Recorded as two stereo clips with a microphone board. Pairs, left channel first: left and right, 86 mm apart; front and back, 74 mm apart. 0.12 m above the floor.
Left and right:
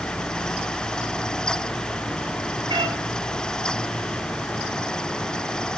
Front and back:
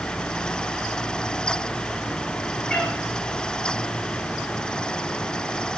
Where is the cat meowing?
75° right, 8 m.